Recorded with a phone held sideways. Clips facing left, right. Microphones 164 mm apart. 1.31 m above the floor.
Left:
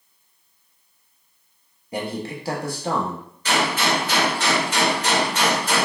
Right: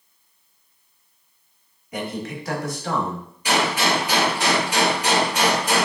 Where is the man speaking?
30° left (ahead or behind), 1.2 m.